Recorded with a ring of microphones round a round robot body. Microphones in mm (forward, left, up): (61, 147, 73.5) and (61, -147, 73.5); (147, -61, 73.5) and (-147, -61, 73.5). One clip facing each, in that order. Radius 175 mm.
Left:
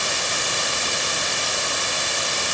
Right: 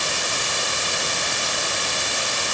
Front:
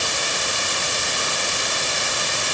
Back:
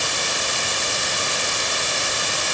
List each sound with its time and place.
Only background noise.